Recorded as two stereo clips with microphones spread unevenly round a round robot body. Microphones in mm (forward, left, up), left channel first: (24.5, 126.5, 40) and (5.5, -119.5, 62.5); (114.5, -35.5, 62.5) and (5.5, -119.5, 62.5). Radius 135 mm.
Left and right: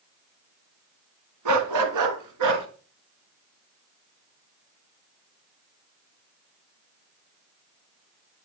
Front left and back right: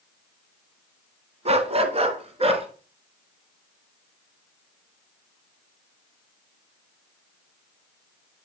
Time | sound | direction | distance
1.4 | a dog barking | 100° right | 2 m